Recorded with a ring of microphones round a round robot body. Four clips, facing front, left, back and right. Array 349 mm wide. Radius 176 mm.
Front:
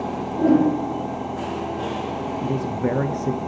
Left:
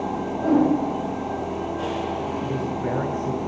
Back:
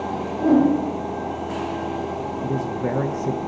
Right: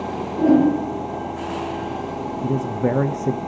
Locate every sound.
0.4 s a whoosh: 50° right, 4 m
2.4 s a man speaking: 80° right, 0.6 m